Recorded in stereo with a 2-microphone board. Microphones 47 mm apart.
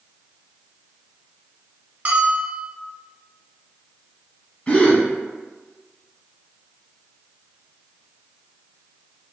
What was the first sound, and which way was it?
A bell, 35° right (ahead or behind).